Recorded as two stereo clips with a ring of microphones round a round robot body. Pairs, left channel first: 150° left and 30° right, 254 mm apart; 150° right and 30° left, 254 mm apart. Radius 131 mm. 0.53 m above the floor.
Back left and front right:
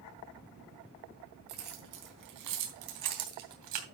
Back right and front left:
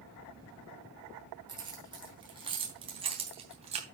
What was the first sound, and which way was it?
Keys jangling, 40° right.